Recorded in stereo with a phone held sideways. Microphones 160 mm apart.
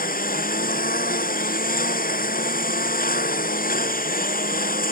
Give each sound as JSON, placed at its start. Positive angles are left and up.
{"t": 0.0, "sound": "a lawn mower", "side_deg": 65}